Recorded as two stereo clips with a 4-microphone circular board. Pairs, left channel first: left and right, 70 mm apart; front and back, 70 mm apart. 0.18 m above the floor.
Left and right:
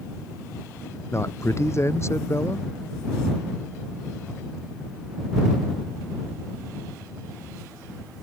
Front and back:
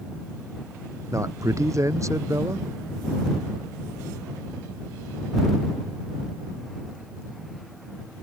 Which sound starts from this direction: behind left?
A man speaking, at 1.1 s.